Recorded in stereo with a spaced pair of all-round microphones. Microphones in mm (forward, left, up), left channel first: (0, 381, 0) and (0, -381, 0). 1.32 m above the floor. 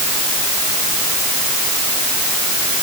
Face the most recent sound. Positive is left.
No sound to turn to.